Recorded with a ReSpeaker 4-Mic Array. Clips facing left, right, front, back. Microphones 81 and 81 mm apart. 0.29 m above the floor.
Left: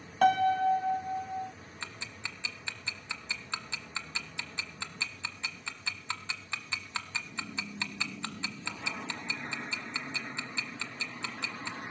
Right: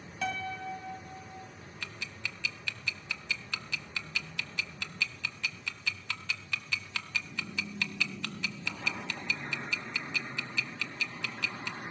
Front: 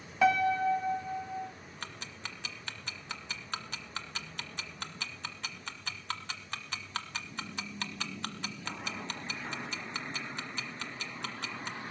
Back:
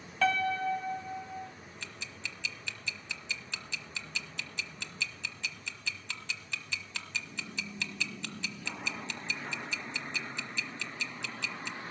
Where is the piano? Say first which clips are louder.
Left 12 dB, front 3 dB; 75° left, 0.7 m.